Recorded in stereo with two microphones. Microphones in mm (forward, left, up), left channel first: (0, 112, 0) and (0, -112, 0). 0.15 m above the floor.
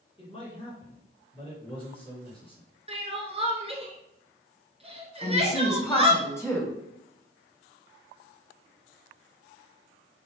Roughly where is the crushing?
I don't hear crushing.